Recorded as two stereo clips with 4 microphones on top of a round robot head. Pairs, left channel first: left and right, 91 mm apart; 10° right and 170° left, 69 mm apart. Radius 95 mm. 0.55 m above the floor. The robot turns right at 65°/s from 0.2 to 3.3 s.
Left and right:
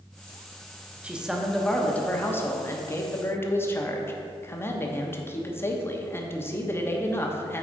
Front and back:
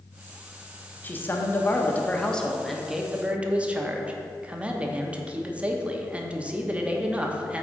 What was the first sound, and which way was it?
A man speaking, 30° right.